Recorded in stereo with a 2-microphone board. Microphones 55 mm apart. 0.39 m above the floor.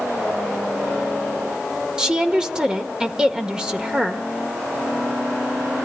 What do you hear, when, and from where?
2.0 s a woman speaking: 15° right (ahead or behind), 1.2 m